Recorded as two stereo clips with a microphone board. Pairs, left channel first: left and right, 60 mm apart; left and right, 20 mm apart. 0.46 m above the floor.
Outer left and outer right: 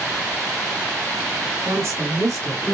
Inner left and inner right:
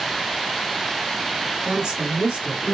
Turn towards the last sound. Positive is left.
turn(degrees=-55)  # may be behind; listen again after turning